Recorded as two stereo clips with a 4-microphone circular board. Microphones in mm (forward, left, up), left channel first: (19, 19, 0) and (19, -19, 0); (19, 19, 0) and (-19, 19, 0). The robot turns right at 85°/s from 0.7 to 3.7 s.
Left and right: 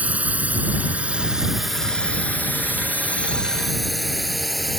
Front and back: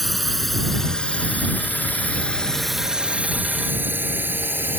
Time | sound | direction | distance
0.0 | a drone | 85° right | ?